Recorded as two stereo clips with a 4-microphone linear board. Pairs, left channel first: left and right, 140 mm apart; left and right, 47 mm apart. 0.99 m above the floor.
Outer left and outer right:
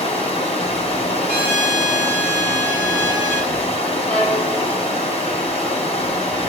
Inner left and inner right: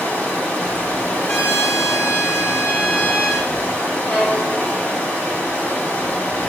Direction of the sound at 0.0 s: 50° left (ahead or behind).